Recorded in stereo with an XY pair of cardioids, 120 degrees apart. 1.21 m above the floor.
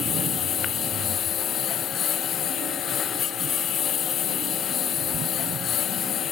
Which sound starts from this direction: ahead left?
A lawn mower, at 0.0 s.